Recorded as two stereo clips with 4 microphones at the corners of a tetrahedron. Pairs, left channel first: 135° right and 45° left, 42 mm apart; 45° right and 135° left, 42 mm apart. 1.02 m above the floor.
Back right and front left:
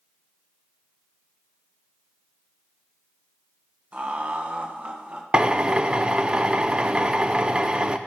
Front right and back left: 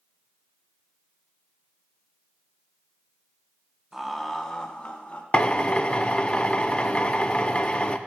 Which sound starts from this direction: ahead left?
Laughter, at 3.9 s.